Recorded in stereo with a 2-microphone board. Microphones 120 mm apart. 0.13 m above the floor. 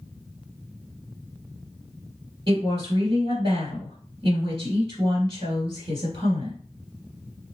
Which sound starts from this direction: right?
A woman speaking, at 2.5 s.